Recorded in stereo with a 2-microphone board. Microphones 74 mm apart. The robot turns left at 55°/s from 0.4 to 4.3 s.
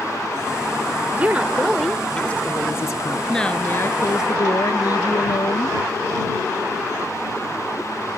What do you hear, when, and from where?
1.1 s a woman speaking: 145° right; by 3.2 s 105° left
3.3 s a woman speaking: 175° left; by 5.8 s 120° left